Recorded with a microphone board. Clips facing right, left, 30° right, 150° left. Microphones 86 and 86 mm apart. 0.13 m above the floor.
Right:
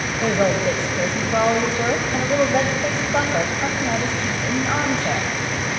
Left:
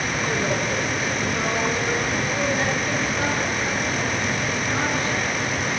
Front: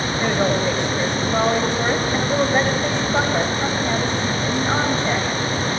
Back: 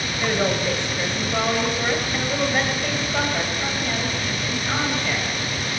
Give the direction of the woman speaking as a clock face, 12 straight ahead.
4 o'clock.